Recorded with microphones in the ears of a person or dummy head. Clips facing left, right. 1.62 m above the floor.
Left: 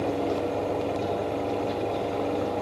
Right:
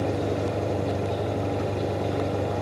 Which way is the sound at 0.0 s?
50° right (ahead or behind).